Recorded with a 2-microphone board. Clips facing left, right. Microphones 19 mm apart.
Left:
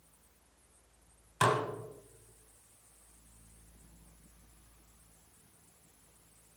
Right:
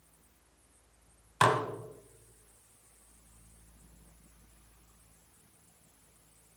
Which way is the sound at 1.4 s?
30° right (ahead or behind).